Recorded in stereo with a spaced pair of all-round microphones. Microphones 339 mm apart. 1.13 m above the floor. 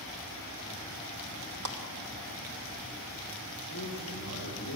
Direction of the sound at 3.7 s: 75° left (ahead or behind).